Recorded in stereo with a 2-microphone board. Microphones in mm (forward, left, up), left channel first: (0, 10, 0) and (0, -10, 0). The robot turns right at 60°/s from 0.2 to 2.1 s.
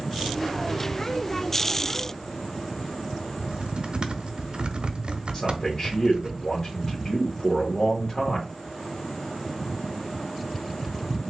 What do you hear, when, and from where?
3.4 s typing on a keyboard: 50° right (ahead or behind), 0.6 m
5.3 s a man speaking: 30° left (ahead or behind), 1.2 m